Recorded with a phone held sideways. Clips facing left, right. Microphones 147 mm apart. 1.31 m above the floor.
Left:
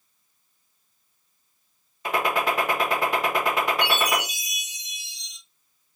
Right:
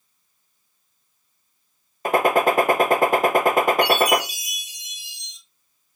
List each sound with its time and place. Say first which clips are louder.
2.0 s a gunshot: right 7 dB; 50° right (ahead or behind), 0.6 m
3.8 s a chime: right 6 dB; 75° left (ahead or behind), 2 m